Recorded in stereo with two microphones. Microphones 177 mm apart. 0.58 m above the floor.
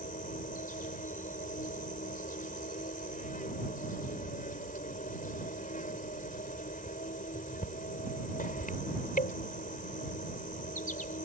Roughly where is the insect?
Left.